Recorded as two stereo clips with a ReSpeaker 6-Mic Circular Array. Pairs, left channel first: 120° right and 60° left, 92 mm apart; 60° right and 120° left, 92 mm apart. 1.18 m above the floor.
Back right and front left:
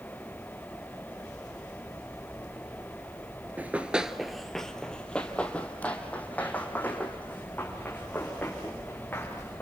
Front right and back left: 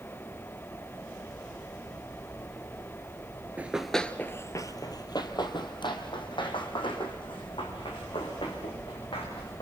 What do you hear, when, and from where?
3.6 s running footsteps: 80° left, 1.2 m; by 9.6 s 50° right, 7.5 m